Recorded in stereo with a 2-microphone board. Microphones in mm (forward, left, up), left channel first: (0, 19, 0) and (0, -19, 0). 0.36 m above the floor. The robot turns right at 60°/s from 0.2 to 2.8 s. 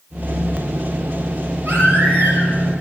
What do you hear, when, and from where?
1.6 s a baby crying: 110° right, 4.5 m; by 2.5 s 60° right, 4.5 m